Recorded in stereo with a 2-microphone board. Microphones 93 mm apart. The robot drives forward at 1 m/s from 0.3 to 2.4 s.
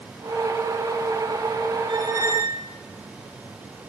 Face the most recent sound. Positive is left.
turn(degrees=-30)  # may be behind; listen again after turning